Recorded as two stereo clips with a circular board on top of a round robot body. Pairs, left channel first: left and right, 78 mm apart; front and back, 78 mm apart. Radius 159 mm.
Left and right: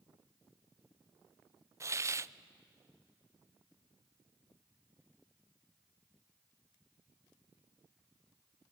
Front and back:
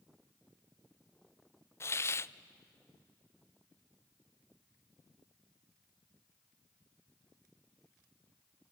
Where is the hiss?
45° right, 0.5 m.